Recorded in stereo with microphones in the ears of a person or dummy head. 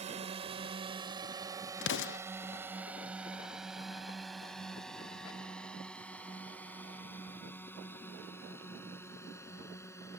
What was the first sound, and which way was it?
A drone, 40° right (ahead or behind).